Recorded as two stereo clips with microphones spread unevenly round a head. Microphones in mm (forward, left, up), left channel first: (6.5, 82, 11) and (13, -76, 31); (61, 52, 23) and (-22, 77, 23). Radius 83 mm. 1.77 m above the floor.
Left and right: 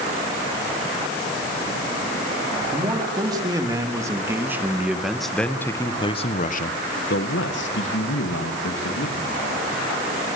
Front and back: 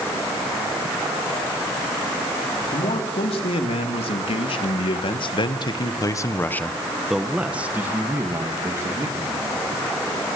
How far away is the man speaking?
About 4.5 m.